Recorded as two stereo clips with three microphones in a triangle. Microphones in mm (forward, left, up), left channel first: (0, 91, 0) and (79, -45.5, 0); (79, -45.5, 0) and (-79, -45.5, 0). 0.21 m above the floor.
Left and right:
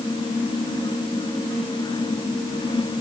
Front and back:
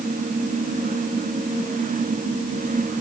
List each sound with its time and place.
Only background noise.